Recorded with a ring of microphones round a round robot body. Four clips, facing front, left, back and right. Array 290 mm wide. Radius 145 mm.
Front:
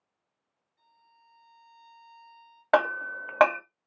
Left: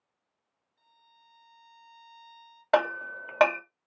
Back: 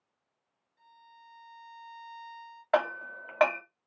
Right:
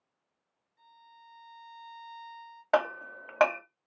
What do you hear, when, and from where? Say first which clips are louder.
0.8 s a violin: right 7 dB, back 7 dB; 135° right, 1.9 m
2.7 s hammering: left 2 dB, front 4 dB; 15° left, 0.6 m